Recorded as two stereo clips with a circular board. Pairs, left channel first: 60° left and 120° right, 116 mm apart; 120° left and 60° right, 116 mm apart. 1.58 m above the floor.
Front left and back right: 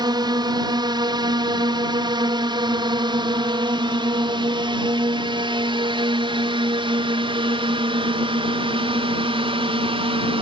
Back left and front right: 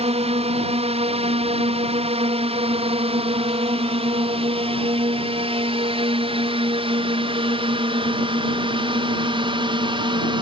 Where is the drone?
70° right; by 10.4 s 95° right.